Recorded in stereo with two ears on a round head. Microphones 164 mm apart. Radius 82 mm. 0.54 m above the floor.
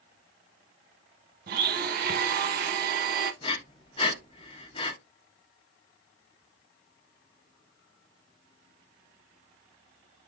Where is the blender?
50° right (ahead or behind), 0.6 m.